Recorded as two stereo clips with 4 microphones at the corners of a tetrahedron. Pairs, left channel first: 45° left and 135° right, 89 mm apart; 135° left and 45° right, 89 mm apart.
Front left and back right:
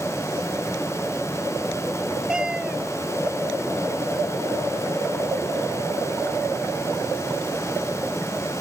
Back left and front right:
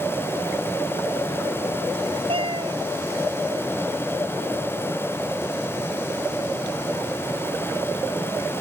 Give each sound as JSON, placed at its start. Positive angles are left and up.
{"t": 2.3, "sound": "a cat meowing", "azimuth_deg": -55}